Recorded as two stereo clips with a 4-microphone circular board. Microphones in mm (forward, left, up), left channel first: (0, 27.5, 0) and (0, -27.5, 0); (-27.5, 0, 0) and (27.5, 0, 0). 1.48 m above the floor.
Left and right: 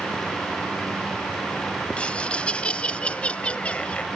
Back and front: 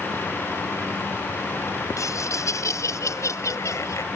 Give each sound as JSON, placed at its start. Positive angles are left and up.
{"t": 2.0, "sound": "laughter", "azimuth_deg": 160}